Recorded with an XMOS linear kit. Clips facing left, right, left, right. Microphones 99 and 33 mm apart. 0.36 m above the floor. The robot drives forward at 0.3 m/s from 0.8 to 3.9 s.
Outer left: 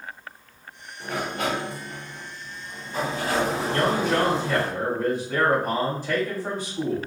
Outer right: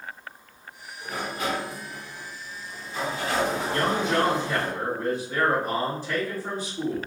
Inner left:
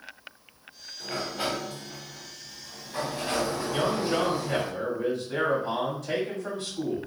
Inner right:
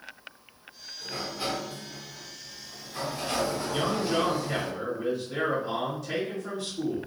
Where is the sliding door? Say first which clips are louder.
Outer left 3 dB, inner left 3 dB; 70° left (ahead or behind), 0.6 m; by 4.7 s 35° left (ahead or behind), 1.0 m.